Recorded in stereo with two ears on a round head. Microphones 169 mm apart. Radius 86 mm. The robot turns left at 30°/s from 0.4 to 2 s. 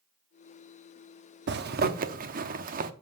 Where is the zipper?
65° right (ahead or behind), 0.8 m; by 2.9 s 50° right (ahead or behind), 0.8 m.